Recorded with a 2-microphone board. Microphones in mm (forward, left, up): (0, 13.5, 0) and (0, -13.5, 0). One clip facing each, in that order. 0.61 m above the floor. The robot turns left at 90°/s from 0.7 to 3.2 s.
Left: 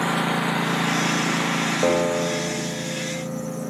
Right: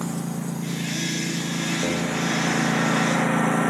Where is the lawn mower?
65° left (ahead or behind); by 3.7 s 75° right (ahead or behind).